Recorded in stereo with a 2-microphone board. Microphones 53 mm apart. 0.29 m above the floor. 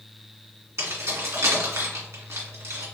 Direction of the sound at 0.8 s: 60° right (ahead or behind).